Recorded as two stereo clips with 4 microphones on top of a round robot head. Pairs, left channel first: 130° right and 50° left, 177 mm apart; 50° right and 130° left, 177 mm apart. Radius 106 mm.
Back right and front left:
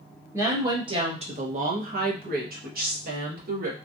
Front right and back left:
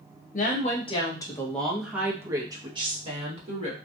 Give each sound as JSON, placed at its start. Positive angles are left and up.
{"t": 0.3, "sound": "a woman speaking", "azimuth_deg": -25, "distance_m": 1.1}